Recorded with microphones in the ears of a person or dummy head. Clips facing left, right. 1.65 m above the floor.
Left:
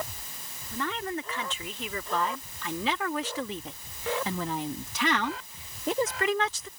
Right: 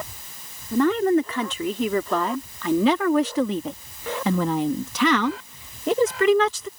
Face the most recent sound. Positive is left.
turn(degrees=-60)  # may be behind; listen again after turning